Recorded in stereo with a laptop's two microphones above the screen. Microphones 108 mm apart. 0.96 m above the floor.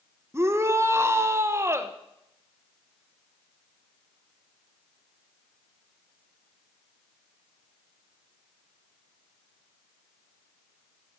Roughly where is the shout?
Right.